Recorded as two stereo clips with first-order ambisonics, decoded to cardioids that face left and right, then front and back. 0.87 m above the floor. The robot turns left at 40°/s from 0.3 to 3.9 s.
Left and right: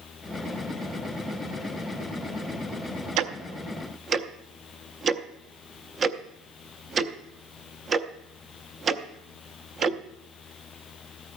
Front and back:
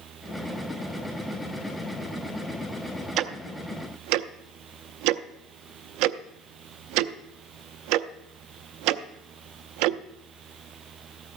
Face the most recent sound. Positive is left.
turn(degrees=-155)